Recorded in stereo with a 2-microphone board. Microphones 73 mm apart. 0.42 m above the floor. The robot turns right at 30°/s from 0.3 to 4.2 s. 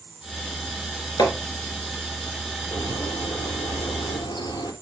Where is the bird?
65° left, 4.5 m; by 4.7 s 110° left, 4.5 m.